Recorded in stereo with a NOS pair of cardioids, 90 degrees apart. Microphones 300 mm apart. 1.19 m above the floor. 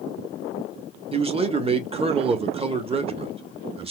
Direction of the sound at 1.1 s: 20° right.